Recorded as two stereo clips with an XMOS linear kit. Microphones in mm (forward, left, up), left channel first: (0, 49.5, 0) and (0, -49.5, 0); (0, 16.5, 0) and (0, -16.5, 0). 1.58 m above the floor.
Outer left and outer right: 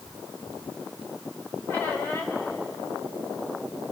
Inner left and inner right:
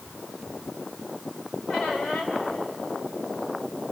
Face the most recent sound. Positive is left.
turn(degrees=20)  # may be behind; listen again after turning